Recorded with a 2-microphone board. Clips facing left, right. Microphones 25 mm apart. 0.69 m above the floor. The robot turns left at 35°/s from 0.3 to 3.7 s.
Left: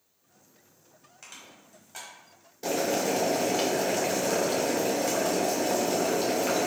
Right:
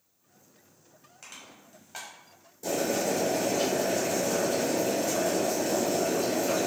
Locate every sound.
1.2 s crushing: centre (ahead or behind), 1.3 m; by 2.1 s 30° right (ahead or behind), 1.3 m
2.6 s boiling: 135° left, 0.9 m; by 6.7 s 95° left, 0.9 m